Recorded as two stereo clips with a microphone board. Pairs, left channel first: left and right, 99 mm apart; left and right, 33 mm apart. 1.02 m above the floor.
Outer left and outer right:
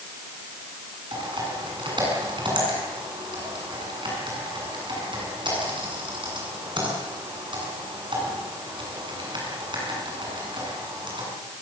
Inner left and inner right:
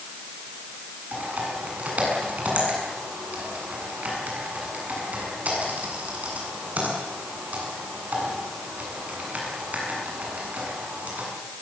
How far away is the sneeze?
I don't hear a sneeze.